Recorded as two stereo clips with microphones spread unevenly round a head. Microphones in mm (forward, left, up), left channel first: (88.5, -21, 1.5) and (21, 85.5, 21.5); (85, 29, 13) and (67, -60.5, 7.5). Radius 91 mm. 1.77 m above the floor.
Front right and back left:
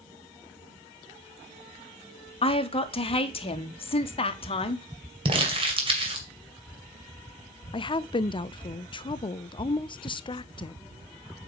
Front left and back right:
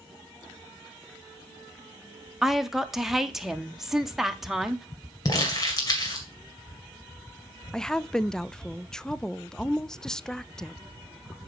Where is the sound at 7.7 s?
5° right, 0.5 m.